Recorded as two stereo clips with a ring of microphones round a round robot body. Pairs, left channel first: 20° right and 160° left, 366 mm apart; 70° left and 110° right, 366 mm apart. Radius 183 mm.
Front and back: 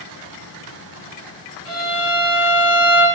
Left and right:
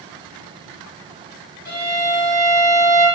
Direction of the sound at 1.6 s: 20° left.